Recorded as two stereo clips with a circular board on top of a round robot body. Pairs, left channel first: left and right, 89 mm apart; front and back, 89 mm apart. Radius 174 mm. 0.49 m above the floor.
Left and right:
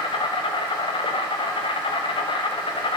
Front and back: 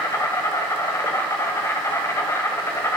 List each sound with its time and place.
0.0 s an insect: 60° left, 1.0 m